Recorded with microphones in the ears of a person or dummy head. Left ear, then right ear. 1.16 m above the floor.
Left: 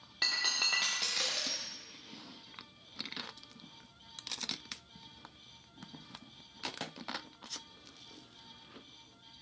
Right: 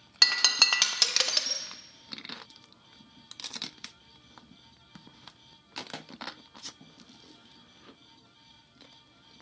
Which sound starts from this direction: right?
Breaking glass, at 0.2 s.